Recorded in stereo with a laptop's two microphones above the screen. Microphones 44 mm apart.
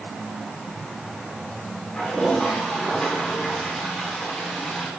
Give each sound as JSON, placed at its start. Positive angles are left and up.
{"t": 1.9, "sound": "a toilet flushing", "side_deg": 20, "distance_m": 3.5}